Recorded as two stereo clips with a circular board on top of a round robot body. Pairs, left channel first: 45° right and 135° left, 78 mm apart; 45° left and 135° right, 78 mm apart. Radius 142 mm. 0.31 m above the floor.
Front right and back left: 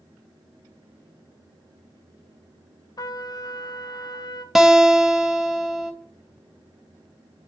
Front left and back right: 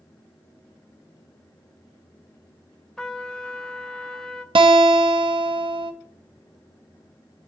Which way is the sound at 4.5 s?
140° right.